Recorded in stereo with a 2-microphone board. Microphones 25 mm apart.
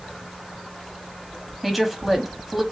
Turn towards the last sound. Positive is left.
turn(degrees=-5)  # may be behind; listen again after turning